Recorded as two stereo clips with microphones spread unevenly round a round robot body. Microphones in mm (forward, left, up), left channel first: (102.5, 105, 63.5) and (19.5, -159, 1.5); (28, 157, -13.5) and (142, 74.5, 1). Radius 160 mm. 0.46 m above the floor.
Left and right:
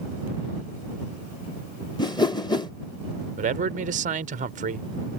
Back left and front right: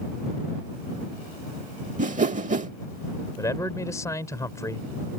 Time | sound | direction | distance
2.0 | a whoosh | 5° right | ?
3.4 | a man speaking | 150° right | ?